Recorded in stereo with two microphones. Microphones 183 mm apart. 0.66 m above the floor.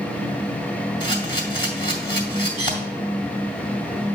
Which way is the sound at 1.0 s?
25° left (ahead or behind).